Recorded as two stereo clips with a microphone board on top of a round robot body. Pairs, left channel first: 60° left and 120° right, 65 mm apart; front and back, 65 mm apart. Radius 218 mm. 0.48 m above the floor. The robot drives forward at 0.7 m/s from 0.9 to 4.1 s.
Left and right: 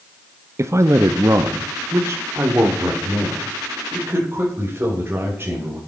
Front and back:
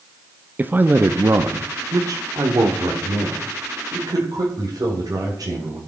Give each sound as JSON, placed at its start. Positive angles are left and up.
{"t": 0.6, "sound": "a man speaking", "azimuth_deg": -130, "distance_m": 0.8}